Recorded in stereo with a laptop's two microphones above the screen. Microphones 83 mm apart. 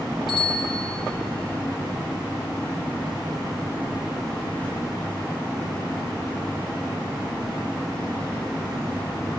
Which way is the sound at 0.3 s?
70° left (ahead or behind).